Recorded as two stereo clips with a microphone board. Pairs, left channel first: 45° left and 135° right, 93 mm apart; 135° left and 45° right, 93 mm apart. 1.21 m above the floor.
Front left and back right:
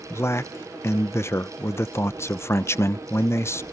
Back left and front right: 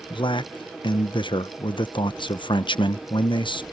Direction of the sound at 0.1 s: 105° left.